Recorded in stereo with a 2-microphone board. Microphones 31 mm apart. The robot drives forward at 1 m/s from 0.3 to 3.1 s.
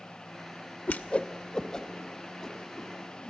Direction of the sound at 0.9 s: 65° left (ahead or behind).